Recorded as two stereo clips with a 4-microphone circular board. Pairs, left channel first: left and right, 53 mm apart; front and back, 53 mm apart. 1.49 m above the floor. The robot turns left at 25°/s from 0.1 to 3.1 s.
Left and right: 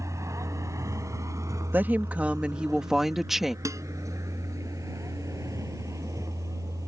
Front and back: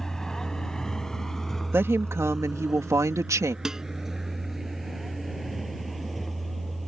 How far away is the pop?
No pop in this recording.